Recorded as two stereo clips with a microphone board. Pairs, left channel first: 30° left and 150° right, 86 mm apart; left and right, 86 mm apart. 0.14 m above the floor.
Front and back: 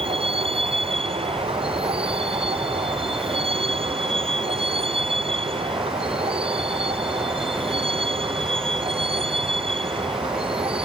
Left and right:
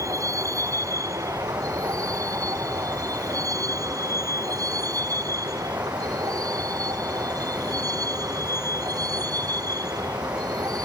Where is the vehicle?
145° right; by 10.8 s 140° right.